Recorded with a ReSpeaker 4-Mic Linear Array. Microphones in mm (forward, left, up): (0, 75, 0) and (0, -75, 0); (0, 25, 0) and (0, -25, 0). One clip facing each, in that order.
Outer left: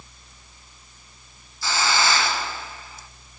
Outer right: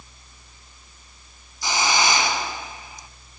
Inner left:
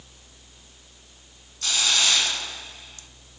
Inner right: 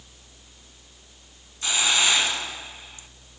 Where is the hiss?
20° right (ahead or behind), 1.5 m.